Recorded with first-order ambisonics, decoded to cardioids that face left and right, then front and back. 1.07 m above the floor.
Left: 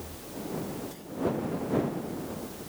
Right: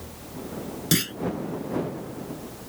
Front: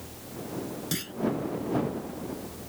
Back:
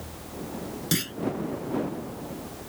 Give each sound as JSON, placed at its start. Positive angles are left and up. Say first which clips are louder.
{"t": 0.9, "sound": "a clunk", "louder": "right 18 dB, back 8 dB", "azimuth_deg": -110}